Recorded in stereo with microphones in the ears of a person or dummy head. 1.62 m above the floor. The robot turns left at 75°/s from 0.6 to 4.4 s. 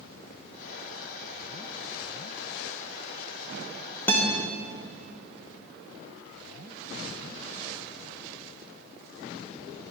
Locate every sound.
4.1 s a guitar: 5° left (ahead or behind), 0.9 m; by 4.3 s 25° left (ahead or behind), 0.9 m